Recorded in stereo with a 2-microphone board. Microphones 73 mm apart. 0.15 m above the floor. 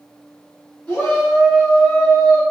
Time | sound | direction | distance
0.9 | a shout | 10° left (ahead or behind) | 1.8 m